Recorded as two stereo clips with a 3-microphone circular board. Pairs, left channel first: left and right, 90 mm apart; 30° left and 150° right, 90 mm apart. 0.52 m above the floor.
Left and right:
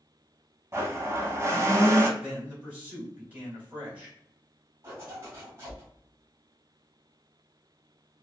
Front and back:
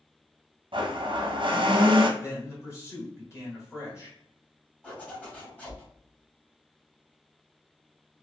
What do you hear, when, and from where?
0.7 s a blender: 150° right, 0.7 m
2.2 s a man speaking: 20° right, 1.9 m
4.8 s a zipper: 40° right, 1.5 m